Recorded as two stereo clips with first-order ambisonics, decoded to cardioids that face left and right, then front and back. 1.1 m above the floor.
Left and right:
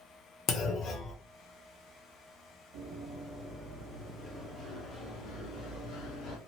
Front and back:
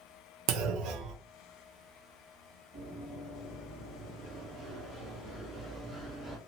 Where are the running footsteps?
100° right, 1.3 m; by 6.4 s 105° left, 1.6 m.